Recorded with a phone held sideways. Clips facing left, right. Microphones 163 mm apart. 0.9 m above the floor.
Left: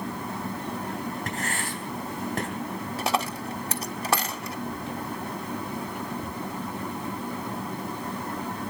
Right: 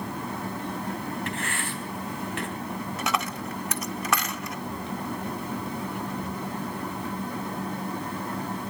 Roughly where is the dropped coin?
Left.